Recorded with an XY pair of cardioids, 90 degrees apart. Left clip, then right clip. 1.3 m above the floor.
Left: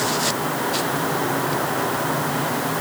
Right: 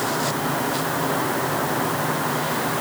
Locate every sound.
Only background noise.